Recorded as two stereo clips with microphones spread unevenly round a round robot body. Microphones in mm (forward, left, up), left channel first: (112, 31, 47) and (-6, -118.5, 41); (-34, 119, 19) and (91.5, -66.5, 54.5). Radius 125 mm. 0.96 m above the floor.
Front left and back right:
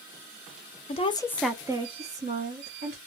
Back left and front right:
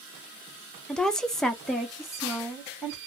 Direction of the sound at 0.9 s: 55° left.